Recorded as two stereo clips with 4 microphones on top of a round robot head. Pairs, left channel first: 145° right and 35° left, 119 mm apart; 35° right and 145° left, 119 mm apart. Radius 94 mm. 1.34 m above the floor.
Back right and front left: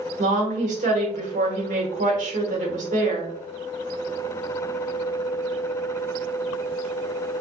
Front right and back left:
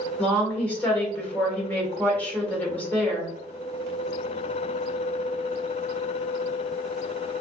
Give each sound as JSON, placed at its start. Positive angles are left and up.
{"t": 0.2, "sound": "a woman speaking", "azimuth_deg": 40, "distance_m": 1.3}